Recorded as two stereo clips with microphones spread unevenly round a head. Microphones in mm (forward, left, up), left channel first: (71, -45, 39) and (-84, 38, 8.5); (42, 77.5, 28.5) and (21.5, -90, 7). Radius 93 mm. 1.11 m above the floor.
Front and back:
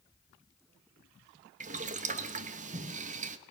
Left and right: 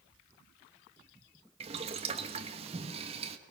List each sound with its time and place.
1.6 s boiling: 155° right, 1.2 m